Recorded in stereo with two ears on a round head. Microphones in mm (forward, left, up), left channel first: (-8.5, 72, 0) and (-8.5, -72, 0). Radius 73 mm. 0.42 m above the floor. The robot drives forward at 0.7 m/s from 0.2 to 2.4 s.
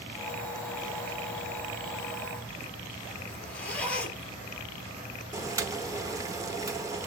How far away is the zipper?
About 3 m.